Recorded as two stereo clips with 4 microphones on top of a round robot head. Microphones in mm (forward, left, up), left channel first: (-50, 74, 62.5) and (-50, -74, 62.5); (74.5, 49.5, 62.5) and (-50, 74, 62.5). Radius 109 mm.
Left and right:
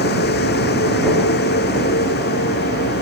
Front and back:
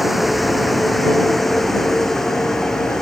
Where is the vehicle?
80° left; by 3.0 s 75° left.